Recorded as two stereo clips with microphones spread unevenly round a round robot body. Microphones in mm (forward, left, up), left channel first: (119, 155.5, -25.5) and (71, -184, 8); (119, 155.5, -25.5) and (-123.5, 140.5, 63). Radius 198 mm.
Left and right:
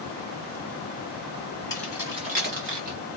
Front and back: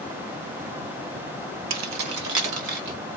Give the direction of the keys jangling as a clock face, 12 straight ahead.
7 o'clock.